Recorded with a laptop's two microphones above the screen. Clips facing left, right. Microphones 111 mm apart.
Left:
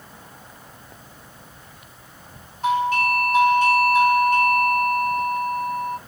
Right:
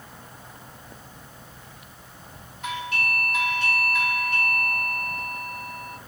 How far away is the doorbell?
About 1.7 m.